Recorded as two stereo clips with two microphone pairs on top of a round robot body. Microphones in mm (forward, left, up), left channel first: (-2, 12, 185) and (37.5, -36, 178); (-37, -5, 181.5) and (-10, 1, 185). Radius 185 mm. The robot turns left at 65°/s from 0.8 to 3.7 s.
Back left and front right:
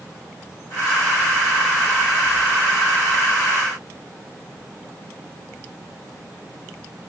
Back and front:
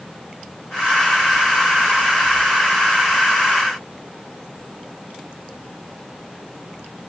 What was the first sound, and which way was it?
Only background noise.